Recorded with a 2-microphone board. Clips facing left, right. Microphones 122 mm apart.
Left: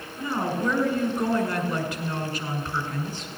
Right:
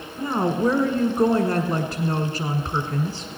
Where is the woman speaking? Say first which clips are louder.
Right 5 dB; 35° right (ahead or behind), 1.4 m.